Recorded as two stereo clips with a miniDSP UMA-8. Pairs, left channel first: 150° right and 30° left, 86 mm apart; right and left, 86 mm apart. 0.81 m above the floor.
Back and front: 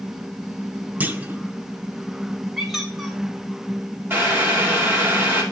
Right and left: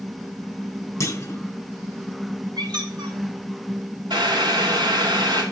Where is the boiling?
90° left, 2.5 m.